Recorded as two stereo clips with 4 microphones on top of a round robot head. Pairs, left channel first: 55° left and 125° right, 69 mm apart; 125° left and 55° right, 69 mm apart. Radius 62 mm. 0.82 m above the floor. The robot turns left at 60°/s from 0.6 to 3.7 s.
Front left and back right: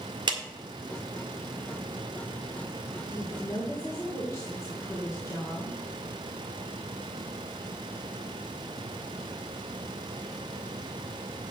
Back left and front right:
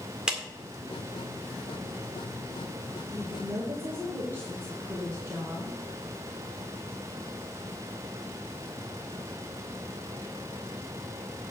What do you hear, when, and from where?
0.3 s a clap: 135° right, 1.8 m
3.1 s a woman speaking: 40° left, 2.5 m; by 5.8 s 5° left, 2.5 m